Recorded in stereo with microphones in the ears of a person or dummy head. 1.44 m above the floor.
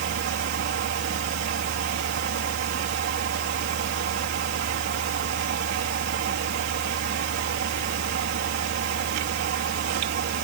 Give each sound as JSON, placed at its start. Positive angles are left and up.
{"t": 0.0, "sound": "a fan", "side_deg": -70}